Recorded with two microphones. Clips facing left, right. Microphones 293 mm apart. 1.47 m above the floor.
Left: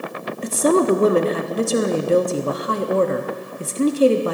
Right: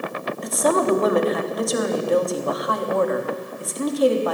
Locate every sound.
0.4 s a woman speaking: 30° left (ahead or behind), 0.7 m